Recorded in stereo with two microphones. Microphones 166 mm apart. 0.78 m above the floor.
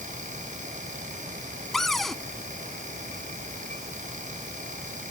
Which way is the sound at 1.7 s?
Centre (ahead or behind).